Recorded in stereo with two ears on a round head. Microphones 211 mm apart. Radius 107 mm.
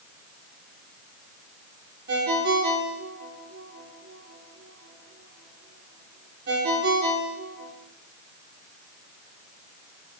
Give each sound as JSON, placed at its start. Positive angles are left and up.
{"t": 2.1, "sound": "a ringtone", "side_deg": -50, "distance_m": 3.0}